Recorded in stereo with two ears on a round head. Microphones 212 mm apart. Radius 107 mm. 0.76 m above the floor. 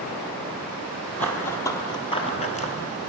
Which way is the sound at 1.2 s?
5° left (ahead or behind).